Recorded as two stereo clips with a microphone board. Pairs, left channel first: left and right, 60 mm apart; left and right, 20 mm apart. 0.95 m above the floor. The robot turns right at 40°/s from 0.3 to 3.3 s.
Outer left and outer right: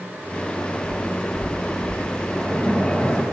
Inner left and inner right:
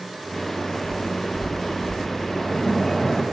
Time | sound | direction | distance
0.8 | footsteps | 45° left (ahead or behind) | 4 m
2.3 | a splash | 10° right | 1.4 m